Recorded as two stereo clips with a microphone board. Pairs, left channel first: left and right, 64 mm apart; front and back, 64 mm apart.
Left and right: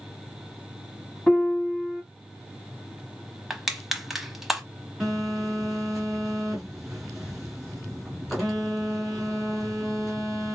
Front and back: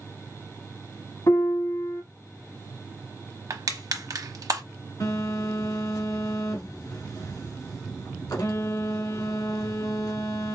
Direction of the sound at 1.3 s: 10° left.